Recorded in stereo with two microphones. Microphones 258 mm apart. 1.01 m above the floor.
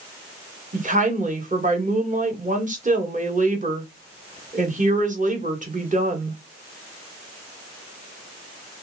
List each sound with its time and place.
0.7 s a woman speaking: 30° right (ahead or behind), 1.0 m